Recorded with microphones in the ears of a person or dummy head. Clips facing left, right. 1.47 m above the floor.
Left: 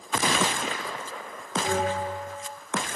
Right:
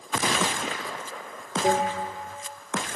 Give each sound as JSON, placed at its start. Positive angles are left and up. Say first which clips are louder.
{"t": 1.6, "sound": "a bell", "louder": "right 3 dB", "side_deg": -60, "distance_m": 3.0}